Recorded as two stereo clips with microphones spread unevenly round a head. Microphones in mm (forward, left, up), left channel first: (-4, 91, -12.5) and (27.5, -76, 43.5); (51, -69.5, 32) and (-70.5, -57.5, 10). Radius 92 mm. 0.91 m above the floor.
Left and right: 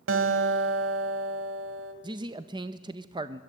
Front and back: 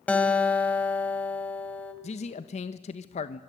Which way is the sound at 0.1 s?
80° right.